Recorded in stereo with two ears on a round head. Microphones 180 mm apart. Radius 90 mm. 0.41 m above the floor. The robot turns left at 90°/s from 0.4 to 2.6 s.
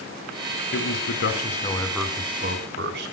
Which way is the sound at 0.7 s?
110° left.